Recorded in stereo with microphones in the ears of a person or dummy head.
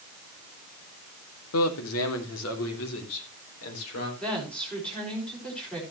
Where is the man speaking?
80° left, 2 m; by 4.1 s 85° left, 4.5 m.